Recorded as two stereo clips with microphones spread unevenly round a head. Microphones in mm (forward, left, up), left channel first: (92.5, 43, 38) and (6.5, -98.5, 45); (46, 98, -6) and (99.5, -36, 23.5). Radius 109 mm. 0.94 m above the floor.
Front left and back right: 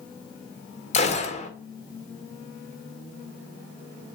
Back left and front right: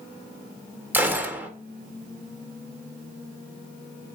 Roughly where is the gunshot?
Ahead.